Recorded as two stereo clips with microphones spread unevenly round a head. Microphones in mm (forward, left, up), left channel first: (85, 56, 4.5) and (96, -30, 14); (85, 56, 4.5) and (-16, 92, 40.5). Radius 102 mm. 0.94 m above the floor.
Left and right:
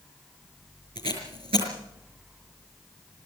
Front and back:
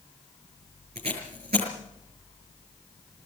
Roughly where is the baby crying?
I don't hear a baby crying.